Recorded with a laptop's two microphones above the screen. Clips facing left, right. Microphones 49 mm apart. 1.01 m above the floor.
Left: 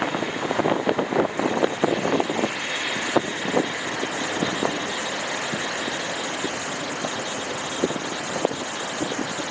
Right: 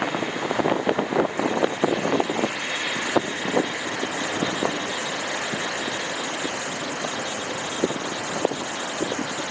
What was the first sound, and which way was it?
Only background noise.